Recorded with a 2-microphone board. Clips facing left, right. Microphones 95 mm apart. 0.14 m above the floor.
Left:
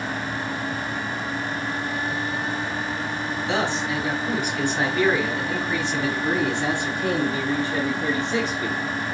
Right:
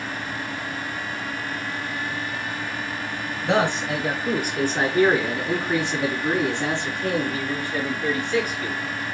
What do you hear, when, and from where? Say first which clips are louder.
3.4 s a man speaking: right 4 dB; 55° right (ahead or behind), 2 m; by 8.8 s 35° left (ahead or behind), 2 m